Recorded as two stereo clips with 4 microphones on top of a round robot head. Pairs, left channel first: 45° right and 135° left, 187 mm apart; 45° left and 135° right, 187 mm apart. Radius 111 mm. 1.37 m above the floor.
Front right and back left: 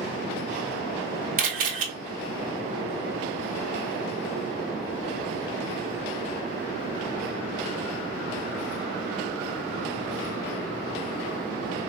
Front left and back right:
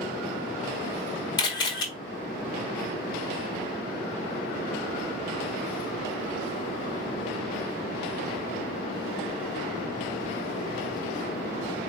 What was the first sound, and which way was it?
A camera shutter, 100° left.